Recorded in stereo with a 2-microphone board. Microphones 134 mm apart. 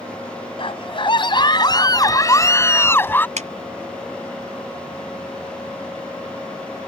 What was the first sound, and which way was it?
A scream, 45° left (ahead or behind).